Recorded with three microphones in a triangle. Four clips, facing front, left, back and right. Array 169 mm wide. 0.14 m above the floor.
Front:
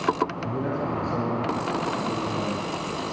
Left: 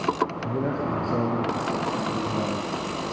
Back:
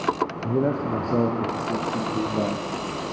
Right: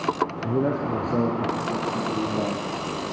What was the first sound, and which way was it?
A man speaking, 150° right.